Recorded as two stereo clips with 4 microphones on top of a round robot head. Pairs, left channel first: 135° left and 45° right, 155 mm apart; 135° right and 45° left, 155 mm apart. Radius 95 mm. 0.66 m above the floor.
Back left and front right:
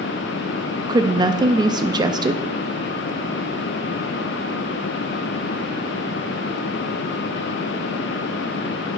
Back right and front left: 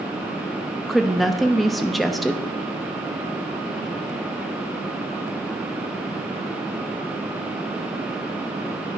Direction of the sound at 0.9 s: 45° right.